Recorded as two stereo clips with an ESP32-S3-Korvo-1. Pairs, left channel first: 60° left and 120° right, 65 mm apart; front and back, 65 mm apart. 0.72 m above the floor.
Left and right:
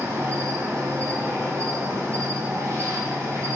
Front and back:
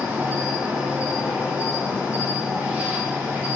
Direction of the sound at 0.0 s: 125° right.